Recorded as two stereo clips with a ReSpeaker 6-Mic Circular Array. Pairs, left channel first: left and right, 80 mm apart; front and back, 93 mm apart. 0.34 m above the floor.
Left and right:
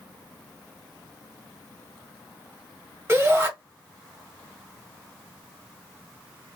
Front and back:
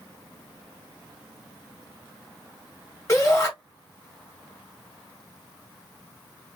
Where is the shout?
45° right, 1.8 m.